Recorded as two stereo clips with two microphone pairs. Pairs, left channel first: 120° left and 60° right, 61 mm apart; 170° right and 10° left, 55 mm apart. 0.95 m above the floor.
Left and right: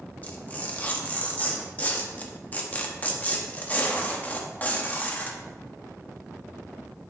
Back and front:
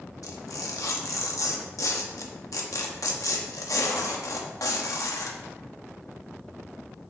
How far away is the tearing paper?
About 1.1 m.